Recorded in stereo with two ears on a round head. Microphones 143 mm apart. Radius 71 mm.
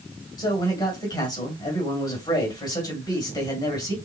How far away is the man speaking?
About 2.0 m.